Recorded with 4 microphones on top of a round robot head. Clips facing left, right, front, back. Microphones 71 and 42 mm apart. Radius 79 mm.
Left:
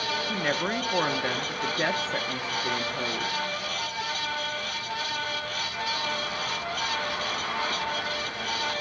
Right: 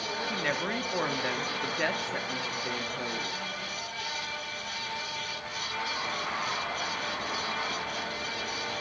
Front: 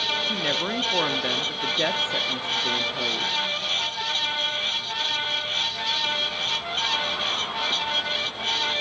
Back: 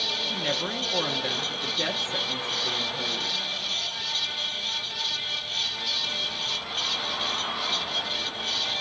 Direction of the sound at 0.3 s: 45° left.